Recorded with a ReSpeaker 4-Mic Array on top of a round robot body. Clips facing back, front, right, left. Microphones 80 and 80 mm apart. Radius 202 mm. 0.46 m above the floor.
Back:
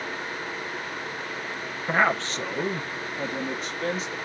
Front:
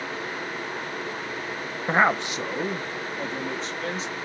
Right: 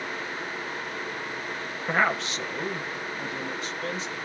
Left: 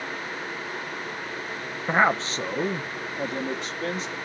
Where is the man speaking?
35° left, 0.8 m; by 4.2 s 105° left, 1.5 m.